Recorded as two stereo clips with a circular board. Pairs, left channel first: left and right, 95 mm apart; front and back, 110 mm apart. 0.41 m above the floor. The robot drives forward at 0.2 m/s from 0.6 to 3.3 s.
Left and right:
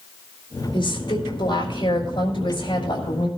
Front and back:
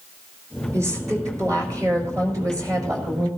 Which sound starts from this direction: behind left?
A woman speaking, at 0.7 s.